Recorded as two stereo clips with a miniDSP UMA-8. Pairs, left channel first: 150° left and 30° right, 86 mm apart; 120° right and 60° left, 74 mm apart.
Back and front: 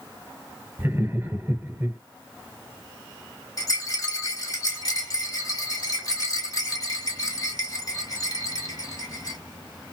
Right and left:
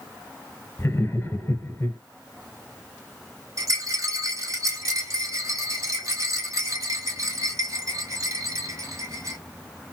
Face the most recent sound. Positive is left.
turn(degrees=100)